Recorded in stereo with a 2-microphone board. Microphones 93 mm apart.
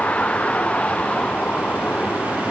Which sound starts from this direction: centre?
A vehicle, at 0.0 s.